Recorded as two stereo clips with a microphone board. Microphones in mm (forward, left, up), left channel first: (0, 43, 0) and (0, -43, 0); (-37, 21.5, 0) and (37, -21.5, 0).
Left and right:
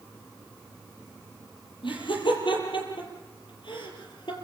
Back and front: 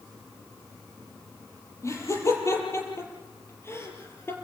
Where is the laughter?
95° left, 7 m; by 4.3 s 90° left, 5.5 m.